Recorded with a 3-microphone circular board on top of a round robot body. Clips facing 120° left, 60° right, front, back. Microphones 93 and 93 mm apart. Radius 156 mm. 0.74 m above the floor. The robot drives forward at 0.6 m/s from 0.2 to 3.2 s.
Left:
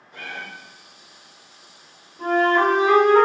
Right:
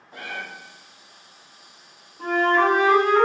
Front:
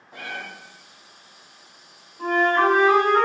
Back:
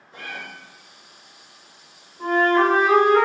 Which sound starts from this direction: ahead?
A cat meowing, at 0.1 s.